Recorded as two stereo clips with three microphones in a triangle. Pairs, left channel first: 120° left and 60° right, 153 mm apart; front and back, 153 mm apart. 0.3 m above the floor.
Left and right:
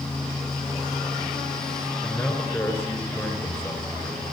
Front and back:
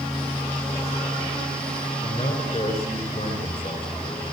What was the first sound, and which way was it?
A man speaking, 45° left.